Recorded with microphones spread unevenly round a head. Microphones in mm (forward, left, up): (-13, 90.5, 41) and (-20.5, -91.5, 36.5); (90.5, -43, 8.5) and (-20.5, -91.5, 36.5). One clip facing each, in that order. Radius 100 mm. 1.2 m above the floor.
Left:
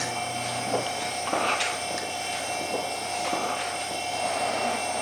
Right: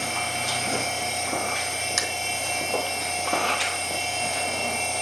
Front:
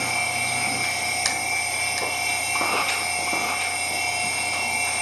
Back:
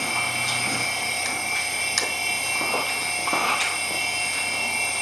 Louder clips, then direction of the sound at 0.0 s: Even, front 1 dB; 25° right.